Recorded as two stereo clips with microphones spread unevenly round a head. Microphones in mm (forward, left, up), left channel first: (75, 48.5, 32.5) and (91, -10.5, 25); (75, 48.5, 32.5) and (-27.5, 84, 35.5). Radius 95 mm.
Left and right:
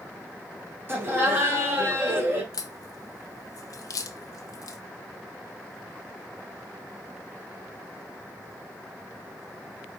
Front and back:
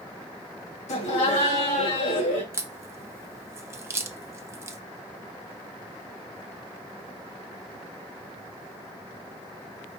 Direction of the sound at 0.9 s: 20° right.